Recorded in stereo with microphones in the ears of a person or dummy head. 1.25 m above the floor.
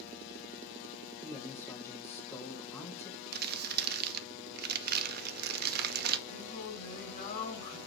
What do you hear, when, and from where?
1.2 s a man speaking: 20° left (ahead or behind), 1.2 m
3.3 s crumpling: 55° right (ahead or behind), 0.5 m
6.3 s singing: 45° left (ahead or behind), 2.5 m